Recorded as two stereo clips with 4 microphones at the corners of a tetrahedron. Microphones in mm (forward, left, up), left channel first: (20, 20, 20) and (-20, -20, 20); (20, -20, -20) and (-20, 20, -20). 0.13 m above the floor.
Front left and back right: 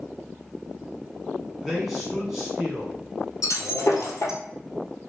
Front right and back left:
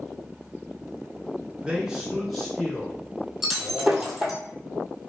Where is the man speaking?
135° left, 1.3 m; by 4.2 s 65° right, 1.9 m.